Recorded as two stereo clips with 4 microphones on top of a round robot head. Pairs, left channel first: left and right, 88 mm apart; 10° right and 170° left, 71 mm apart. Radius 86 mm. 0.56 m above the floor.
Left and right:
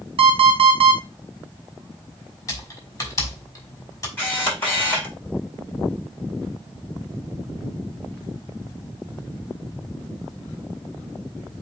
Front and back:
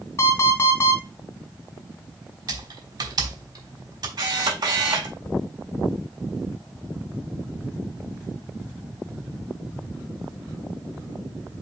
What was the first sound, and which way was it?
An alarm clock, 65° right.